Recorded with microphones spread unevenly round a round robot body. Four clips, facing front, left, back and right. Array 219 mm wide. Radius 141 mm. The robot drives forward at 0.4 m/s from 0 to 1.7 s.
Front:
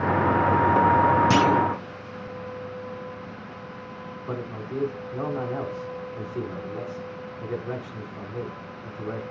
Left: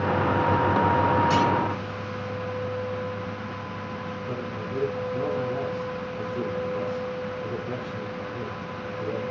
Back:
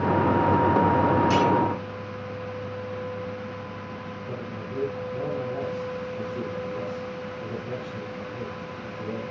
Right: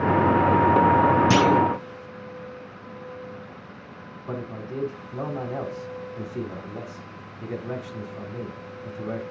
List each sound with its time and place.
1.3 s a clunk: 80° right, 0.6 m; by 1.6 s 95° right, 0.6 m
4.3 s a man speaking: 125° right, 3 m